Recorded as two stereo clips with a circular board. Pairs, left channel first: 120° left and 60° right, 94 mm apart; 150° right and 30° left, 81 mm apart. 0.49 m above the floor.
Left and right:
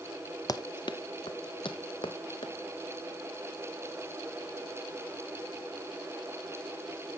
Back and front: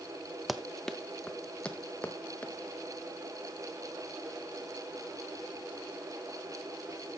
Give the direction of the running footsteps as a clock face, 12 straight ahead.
8 o'clock.